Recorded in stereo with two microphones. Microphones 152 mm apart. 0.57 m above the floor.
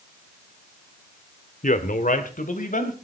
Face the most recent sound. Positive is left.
turn(degrees=60)  # may be behind; listen again after turning